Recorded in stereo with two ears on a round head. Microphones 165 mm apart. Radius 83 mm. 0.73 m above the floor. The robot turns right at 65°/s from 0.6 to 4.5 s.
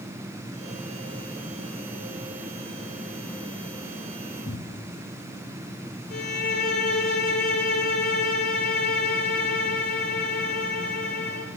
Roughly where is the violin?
Left.